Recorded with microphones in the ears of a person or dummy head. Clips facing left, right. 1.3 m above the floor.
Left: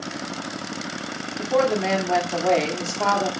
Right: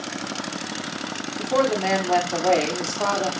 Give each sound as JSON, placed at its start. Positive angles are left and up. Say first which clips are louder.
{"t": 1.4, "sound": "a woman speaking", "louder": "left 1 dB", "side_deg": 0, "distance_m": 0.7}